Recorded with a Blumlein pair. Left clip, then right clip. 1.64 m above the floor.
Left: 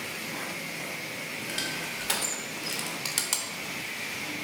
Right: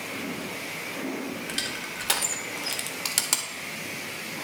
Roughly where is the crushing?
Ahead.